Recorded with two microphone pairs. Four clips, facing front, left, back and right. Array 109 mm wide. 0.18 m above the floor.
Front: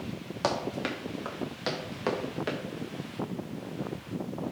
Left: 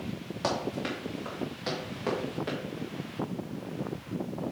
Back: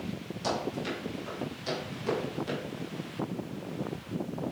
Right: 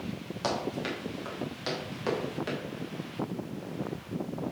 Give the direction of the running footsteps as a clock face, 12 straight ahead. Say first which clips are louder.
Left 1 dB, front 2 dB; 12 o'clock.